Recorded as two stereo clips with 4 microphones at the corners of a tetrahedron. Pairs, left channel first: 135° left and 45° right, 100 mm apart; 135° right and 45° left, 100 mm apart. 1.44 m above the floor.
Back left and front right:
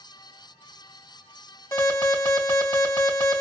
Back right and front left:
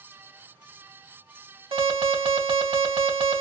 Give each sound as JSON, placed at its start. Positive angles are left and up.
{"t": 1.7, "sound": "an alarm", "azimuth_deg": 75, "distance_m": 3.0}